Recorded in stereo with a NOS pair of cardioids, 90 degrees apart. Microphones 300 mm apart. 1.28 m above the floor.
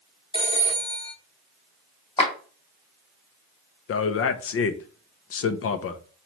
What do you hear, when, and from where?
0.3 s a phone ringing: 20° left, 1.1 m
2.2 s a clap: 15° left, 1.4 m
3.9 s a man speaking: 50° left, 0.6 m